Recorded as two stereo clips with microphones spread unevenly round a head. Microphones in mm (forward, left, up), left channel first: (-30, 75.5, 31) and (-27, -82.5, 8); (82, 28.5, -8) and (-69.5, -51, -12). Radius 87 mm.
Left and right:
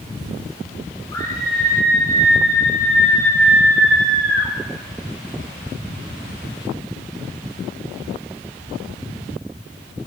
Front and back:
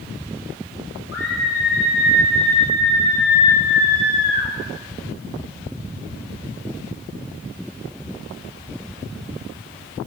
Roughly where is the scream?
Ahead.